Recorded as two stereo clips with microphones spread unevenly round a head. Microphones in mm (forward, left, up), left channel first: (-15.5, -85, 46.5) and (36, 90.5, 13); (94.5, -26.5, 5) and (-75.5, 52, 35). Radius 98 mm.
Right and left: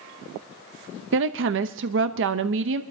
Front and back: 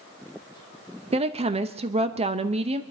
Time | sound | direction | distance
1.1 | a woman speaking | 90° left | 0.9 m